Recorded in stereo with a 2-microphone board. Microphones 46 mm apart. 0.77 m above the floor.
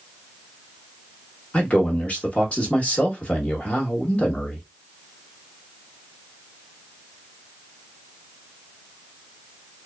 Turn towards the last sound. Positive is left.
turn(degrees=30)  # may be behind; listen again after turning